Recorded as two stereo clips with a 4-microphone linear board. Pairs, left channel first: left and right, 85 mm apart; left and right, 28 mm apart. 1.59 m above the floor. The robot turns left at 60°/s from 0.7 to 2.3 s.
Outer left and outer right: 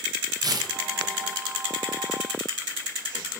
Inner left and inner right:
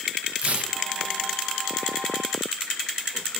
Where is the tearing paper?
50° right (ahead or behind), 0.6 m; by 0.8 s 45° right (ahead or behind), 0.6 m.